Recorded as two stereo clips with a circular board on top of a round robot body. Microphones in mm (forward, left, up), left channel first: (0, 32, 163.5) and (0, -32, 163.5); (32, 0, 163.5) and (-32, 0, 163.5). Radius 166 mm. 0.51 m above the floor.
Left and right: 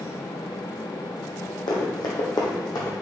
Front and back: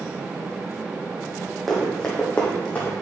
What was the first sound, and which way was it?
Running footsteps, 85° left.